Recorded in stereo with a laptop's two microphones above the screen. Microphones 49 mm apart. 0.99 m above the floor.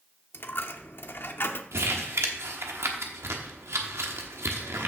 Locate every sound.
0.3 s a dropped coin: 50° left (ahead or behind), 0.8 m
1.7 s crumpling: 75° right (ahead or behind), 1.2 m